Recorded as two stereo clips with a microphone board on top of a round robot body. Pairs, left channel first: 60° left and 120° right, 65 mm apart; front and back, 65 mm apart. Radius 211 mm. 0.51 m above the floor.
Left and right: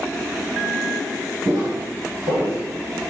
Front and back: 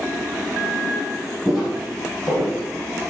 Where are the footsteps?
100° right, 1.4 m; by 3.1 s 15° right, 0.7 m.